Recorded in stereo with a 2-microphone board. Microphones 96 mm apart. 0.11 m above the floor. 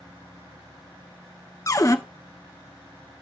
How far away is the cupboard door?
About 0.5 m.